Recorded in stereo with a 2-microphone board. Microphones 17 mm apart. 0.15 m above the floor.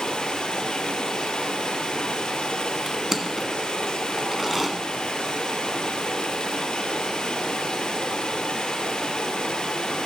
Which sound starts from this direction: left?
Running water, at 0.0 s.